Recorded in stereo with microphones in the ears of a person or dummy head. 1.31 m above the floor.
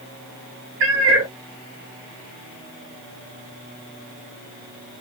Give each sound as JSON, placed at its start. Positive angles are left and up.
{"t": 0.8, "sound": "a cat meowing", "side_deg": -65, "distance_m": 1.2}